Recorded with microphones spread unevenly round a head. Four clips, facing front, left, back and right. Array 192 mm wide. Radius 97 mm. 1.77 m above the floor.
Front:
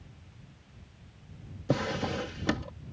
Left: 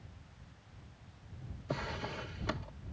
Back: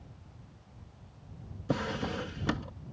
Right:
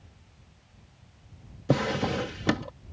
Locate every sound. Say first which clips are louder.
1.7 s a drawer: right 13 dB, front 3 dB; 80° right